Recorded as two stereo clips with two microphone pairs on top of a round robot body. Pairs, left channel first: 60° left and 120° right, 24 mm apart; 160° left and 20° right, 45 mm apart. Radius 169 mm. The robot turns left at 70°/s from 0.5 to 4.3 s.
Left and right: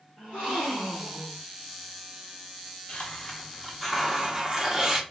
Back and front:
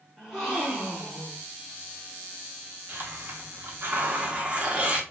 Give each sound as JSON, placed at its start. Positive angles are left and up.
{"t": 0.2, "sound": "a gasp", "azimuth_deg": 75, "distance_m": 0.8}
{"t": 2.9, "sound": "a hiss", "azimuth_deg": 20, "distance_m": 1.0}